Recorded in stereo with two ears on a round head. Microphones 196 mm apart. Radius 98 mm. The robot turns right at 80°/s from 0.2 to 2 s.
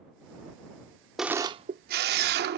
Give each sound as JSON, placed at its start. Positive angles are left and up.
{"t": 1.2, "sound": "a camera shutter", "azimuth_deg": 180}